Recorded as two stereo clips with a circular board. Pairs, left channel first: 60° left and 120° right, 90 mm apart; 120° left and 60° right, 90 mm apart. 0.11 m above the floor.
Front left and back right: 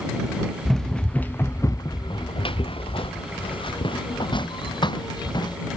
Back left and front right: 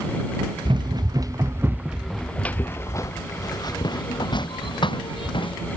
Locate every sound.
0.7 s running footsteps: 25° right; by 5.6 s 95° left